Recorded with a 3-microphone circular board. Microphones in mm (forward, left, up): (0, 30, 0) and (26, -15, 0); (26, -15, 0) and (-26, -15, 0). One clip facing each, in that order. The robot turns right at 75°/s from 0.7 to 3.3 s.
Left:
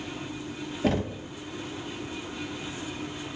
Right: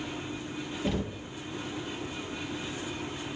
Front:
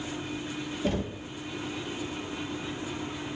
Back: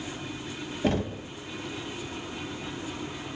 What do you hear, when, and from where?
0.8 s knocking: 135° left, 0.7 m; by 1.3 s 170° left, 0.7 m